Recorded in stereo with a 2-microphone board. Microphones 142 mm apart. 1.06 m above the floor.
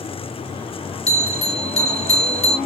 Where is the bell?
50° left (ahead or behind), 2.0 m.